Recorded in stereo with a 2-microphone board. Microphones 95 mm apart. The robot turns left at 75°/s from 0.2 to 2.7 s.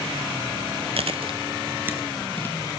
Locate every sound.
1.0 s chewing: 70° right (ahead or behind), 0.6 m; by 2.8 s 40° left (ahead or behind), 0.6 m